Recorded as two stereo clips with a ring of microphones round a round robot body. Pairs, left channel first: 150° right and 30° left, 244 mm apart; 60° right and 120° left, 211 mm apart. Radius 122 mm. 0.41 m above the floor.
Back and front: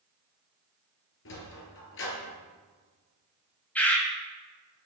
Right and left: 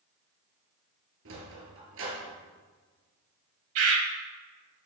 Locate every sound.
1.2 s a sliding door: 165° left, 2.5 m
3.8 s a bird: 125° left, 2.0 m